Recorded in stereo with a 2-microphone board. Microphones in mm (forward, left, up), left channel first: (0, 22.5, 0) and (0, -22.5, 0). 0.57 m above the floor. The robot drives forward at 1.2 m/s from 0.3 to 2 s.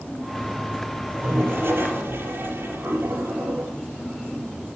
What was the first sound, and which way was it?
A toilet flushing, 80° right.